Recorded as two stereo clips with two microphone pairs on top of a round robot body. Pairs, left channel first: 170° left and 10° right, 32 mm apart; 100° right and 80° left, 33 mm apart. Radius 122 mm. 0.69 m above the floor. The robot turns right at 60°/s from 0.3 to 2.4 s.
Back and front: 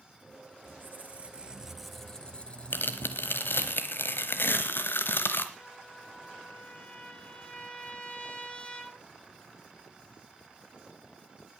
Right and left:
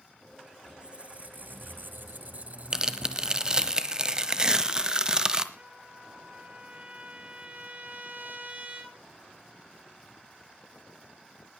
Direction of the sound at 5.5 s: 115° left.